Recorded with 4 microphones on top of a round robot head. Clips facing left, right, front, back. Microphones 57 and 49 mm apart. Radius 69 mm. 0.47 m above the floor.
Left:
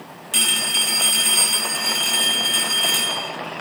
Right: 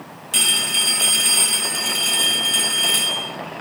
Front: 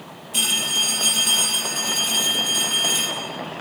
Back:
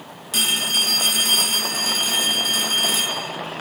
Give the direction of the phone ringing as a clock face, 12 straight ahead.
6 o'clock.